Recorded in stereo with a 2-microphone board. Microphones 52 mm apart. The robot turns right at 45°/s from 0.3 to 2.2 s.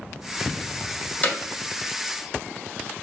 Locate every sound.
1.2 s hammering: 30° left (ahead or behind), 0.9 m; by 1.4 s 25° left (ahead or behind), 0.9 m